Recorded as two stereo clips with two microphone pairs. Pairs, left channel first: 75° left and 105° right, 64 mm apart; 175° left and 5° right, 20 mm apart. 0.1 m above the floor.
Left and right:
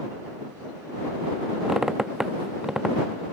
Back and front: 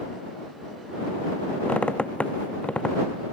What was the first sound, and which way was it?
A squeak, 175° left.